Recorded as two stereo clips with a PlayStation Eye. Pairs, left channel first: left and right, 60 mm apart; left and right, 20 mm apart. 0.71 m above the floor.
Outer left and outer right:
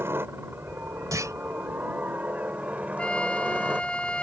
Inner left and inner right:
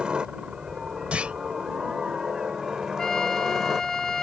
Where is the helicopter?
45° right (ahead or behind); by 4.2 s 20° right (ahead or behind).